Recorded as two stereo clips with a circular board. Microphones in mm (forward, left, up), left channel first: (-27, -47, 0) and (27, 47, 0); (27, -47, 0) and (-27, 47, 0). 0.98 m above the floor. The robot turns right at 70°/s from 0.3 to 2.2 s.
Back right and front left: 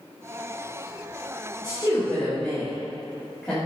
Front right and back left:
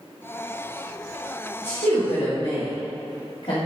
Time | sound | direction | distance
1.6 | a woman speaking | 70° right | 2 m